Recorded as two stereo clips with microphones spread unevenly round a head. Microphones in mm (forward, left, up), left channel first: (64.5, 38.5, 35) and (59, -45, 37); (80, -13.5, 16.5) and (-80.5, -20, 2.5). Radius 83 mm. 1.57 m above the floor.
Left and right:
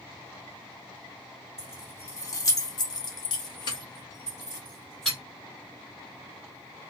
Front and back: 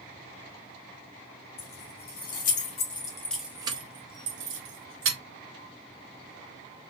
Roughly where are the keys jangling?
Ahead left.